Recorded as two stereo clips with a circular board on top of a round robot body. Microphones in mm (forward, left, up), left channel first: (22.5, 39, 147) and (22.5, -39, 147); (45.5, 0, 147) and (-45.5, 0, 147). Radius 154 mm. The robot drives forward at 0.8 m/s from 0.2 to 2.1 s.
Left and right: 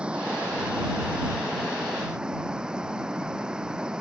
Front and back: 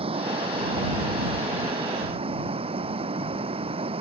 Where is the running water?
170° right.